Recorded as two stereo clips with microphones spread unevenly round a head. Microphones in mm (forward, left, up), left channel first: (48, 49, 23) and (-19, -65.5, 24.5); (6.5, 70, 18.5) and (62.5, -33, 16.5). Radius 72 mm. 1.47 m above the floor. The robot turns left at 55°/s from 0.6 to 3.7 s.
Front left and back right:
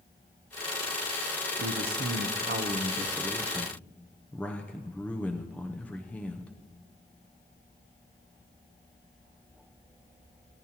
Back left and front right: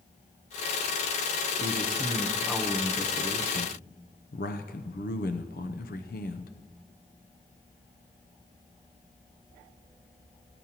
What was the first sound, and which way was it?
A man speaking, 105° right.